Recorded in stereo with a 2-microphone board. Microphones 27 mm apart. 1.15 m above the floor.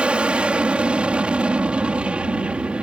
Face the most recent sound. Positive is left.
turn(degrees=-50)  # may be behind; listen again after turning